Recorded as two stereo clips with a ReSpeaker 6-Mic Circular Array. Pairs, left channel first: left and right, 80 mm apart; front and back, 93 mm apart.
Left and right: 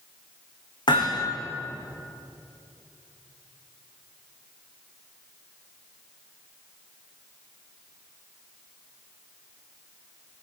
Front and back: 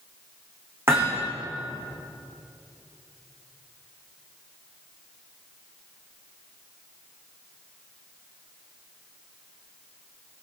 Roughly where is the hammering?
Behind left.